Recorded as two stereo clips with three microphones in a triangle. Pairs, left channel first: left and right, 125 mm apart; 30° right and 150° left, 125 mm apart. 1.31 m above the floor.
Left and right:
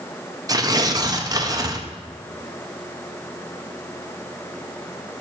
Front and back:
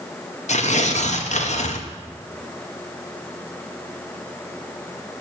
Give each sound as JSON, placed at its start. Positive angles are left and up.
{"t": 0.5, "sound": "tearing paper", "azimuth_deg": -30, "distance_m": 0.7}